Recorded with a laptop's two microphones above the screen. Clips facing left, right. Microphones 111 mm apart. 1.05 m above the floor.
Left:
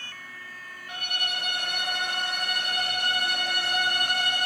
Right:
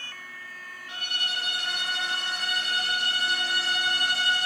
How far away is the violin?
About 0.8 m.